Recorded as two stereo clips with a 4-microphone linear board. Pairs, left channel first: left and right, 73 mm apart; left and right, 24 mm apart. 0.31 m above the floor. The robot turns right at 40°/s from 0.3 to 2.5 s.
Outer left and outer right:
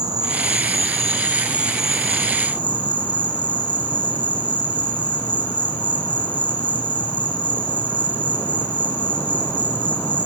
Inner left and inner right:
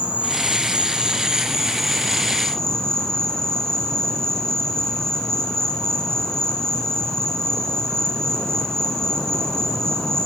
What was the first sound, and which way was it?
An insect, 65° right.